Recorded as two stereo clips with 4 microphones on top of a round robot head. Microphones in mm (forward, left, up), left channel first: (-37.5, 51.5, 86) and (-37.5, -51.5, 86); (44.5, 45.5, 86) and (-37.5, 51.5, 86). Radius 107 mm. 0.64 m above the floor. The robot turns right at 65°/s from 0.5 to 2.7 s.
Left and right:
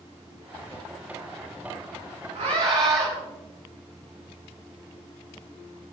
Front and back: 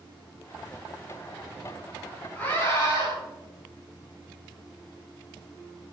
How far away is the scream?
About 7.5 m.